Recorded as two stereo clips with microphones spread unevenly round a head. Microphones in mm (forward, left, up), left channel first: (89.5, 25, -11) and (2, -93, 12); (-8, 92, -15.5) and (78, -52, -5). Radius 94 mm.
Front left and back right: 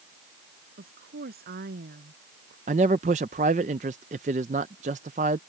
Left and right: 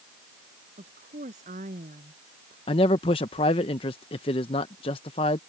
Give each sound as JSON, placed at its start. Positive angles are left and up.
{"t": 0.8, "sound": "a woman speaking", "azimuth_deg": -115}
{"t": 2.7, "sound": "a man speaking", "azimuth_deg": 180}